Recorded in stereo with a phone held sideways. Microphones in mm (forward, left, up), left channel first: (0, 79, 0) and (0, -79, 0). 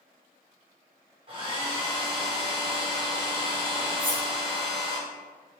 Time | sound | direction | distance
1.3 | a hair dryer | 35° right (ahead or behind) | 1.1 m
4.0 | cutlery clinking | 10° right (ahead or behind) | 1.0 m